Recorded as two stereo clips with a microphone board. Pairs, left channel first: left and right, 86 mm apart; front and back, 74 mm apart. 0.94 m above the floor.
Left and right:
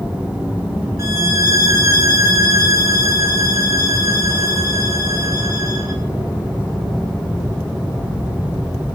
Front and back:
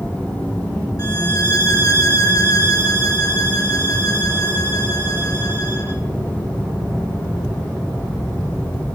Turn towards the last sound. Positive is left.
turn(degrees=-40)